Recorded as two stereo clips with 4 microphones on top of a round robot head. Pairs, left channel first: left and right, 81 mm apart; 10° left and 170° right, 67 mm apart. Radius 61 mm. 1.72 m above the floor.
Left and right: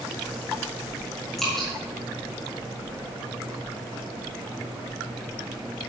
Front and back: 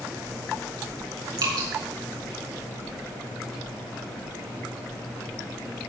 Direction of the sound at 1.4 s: Straight behind.